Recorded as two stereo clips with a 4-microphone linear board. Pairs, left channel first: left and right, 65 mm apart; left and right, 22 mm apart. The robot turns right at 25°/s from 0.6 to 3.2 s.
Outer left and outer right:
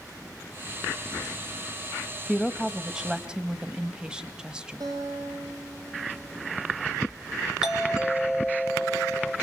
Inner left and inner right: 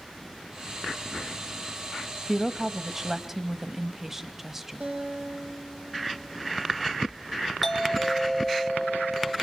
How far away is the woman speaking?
About 1.2 m.